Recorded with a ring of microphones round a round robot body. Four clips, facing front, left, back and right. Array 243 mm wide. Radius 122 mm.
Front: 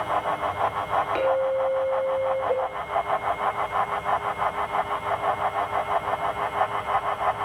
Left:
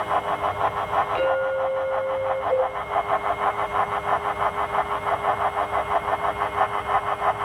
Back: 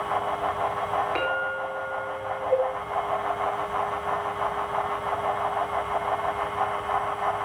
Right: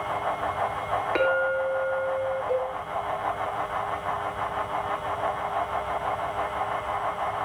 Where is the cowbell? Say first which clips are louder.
Left 7 dB, back 2 dB; 15° right, 8.5 m.